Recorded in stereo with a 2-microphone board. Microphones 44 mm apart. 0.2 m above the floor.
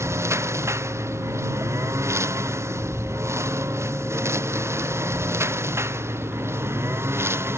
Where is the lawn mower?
80° right; by 7.6 s 65° right (ahead or behind).